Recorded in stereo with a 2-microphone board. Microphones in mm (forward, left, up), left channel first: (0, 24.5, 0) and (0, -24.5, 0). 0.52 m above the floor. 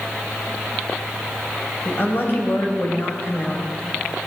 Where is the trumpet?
I don't hear a trumpet.